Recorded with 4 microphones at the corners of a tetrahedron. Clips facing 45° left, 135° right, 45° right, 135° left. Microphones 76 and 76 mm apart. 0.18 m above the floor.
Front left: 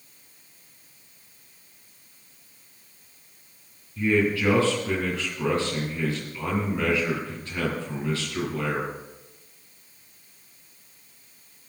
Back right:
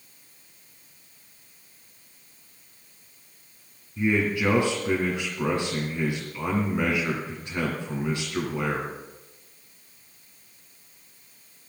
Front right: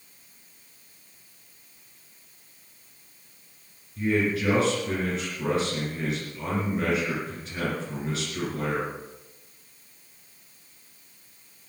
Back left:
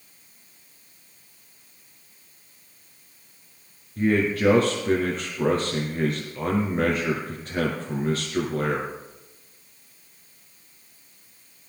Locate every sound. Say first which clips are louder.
4.0 s a man speaking: front left 1 dB, back left 3 dB; 160° left, 2.5 m